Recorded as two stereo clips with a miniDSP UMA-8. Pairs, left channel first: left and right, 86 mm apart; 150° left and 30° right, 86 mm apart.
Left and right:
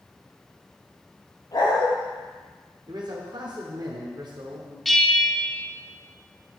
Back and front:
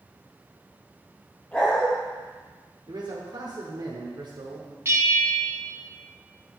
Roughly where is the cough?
No cough in this recording.